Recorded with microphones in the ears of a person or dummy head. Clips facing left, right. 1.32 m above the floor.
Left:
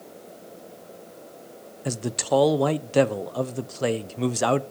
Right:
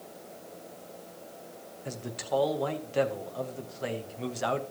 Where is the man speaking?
70° left (ahead or behind), 0.6 m.